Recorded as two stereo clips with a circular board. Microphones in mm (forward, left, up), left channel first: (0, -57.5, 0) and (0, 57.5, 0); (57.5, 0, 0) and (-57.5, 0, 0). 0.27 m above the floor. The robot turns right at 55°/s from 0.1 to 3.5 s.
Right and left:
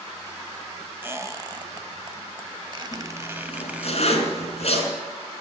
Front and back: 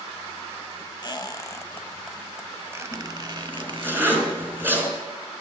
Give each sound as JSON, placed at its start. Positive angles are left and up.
{"t": 1.0, "sound": "a squeak", "azimuth_deg": 25, "distance_m": 0.7}
{"t": 2.9, "sound": "a zipper", "azimuth_deg": -145, "distance_m": 3.5}